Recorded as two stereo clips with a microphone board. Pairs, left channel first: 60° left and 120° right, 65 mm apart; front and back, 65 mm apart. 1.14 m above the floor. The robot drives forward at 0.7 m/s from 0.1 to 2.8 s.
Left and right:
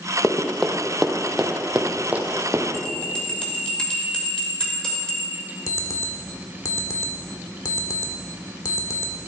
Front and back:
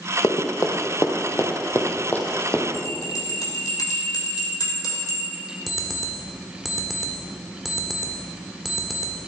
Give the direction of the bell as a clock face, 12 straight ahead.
1 o'clock.